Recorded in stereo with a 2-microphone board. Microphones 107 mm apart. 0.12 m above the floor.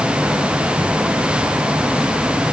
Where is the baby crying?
I don't hear a baby crying.